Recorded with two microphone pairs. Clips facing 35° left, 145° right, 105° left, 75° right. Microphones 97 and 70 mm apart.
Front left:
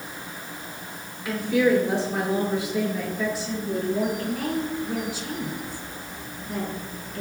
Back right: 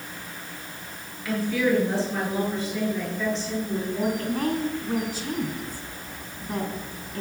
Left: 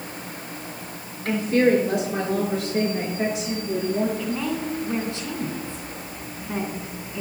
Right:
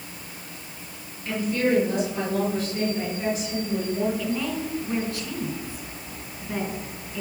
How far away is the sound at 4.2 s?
About 3.5 m.